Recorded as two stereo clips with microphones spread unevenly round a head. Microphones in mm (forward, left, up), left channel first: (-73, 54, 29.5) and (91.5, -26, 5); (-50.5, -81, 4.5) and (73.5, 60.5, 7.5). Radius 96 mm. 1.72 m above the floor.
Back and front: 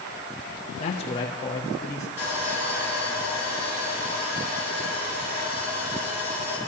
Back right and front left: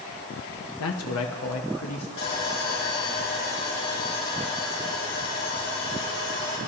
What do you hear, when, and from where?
0.8 s a man speaking: 150° right, 0.7 m; by 2.1 s 130° right, 1.5 m
2.2 s sawing: 105° right, 6 m